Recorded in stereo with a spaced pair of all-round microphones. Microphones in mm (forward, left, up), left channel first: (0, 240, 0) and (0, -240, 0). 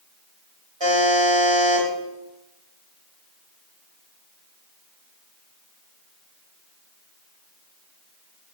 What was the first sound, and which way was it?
A buzzer, 60° right (ahead or behind).